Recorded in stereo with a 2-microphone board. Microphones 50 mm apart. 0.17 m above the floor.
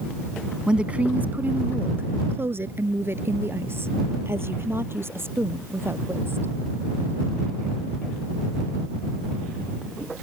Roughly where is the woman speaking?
Centre.